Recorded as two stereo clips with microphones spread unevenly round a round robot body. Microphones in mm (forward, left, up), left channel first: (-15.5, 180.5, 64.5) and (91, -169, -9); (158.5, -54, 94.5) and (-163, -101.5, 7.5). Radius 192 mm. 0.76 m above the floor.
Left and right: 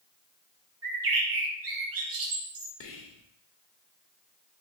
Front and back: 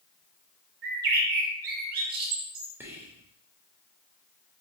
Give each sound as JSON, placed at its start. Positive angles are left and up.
{"t": 0.8, "sound": "a bird", "azimuth_deg": -110, "distance_m": 0.6}
{"t": 2.8, "sound": "whispering", "azimuth_deg": 145, "distance_m": 0.6}